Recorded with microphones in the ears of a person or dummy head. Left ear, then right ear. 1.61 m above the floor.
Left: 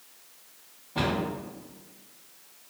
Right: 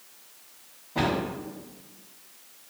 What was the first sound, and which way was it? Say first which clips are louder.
A cupboard door: right 2 dB; 5° left (ahead or behind).